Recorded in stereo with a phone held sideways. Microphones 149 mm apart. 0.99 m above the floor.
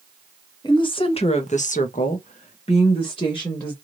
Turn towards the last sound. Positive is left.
turn(degrees=25)  # may be behind; listen again after turning